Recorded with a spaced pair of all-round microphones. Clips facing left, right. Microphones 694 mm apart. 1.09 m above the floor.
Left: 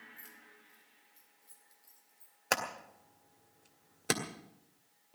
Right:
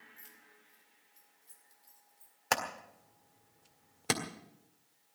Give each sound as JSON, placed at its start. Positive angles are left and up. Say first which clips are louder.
{"t": 0.2, "sound": "keys jangling", "louder": "left 3 dB", "side_deg": -50, "distance_m": 3.0}
{"t": 2.5, "sound": "hammering", "louder": "even", "side_deg": -35, "distance_m": 1.8}